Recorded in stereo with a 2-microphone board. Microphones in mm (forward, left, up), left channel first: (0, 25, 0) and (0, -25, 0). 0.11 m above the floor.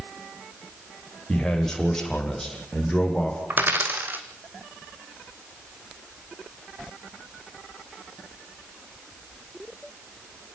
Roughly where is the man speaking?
Centre.